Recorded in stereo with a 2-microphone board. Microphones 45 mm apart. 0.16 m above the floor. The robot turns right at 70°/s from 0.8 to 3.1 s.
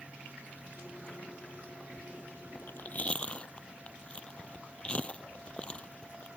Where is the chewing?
65° left (ahead or behind); by 6.3 s 30° left (ahead or behind).